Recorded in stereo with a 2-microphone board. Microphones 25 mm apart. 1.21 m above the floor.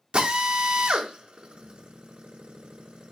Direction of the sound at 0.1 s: 40° right (ahead or behind).